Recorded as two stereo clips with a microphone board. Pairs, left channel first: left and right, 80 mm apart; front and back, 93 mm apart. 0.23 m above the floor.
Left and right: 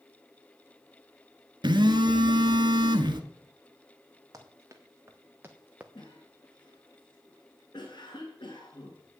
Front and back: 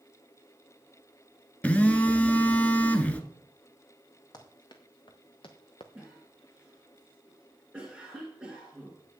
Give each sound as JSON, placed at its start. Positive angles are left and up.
{"t": 1.6, "sound": "a phone buzzing", "azimuth_deg": -75, "distance_m": 1.0}
{"t": 4.3, "sound": "running footsteps", "azimuth_deg": -40, "distance_m": 2.0}
{"t": 6.0, "sound": "a cough", "azimuth_deg": 95, "distance_m": 2.5}